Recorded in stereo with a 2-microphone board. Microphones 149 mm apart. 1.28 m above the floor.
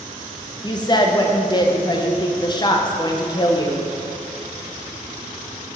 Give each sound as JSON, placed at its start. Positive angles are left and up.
{"t": 0.6, "sound": "a woman speaking", "side_deg": 30, "distance_m": 0.8}